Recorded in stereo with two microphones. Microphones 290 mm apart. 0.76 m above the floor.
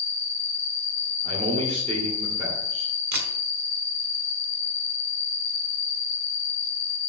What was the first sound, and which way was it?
An insect, 40° right (ahead or behind).